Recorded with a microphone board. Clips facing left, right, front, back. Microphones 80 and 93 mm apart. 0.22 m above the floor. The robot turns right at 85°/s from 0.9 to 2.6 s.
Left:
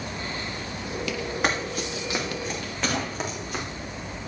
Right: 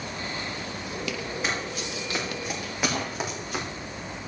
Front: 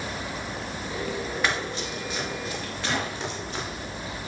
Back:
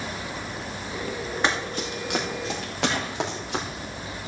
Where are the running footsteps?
115° left, 3.5 m; by 3.6 s 175° left, 4.5 m.